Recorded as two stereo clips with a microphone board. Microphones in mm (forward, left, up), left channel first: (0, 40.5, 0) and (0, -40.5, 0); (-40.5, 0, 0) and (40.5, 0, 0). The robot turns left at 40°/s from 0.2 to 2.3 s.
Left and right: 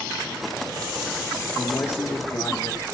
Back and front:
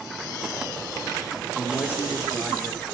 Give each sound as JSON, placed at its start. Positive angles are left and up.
{"t": 1.6, "sound": "a man speaking", "azimuth_deg": 140, "distance_m": 1.6}